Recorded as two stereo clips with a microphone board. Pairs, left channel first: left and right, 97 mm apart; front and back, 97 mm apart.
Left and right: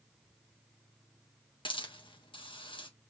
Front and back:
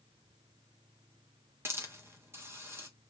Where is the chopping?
I don't hear chopping.